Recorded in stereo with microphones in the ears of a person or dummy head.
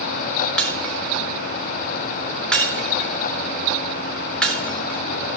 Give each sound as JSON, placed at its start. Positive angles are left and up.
{"t": 0.6, "sound": "breaking glass", "side_deg": 5, "distance_m": 3.0}